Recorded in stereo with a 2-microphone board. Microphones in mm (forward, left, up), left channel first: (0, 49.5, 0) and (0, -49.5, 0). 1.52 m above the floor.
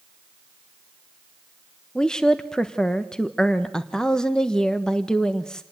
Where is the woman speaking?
5° left (ahead or behind), 1.1 m.